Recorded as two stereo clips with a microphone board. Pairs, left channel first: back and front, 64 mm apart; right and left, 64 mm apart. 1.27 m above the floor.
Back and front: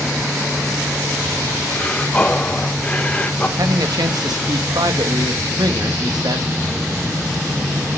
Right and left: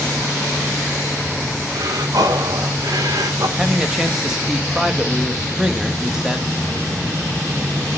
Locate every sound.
1.7 s breathing: 110° left, 1.5 m
3.6 s a man speaking: 10° left, 1.8 m